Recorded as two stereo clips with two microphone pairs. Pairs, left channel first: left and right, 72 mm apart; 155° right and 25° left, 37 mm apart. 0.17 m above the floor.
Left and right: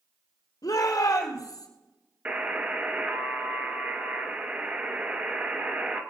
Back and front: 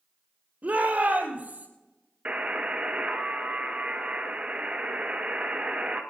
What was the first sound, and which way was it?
A shout, 70° left.